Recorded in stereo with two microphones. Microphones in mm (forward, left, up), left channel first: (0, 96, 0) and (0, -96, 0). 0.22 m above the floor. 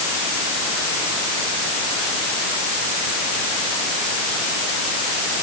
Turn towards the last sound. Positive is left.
No sound to turn to.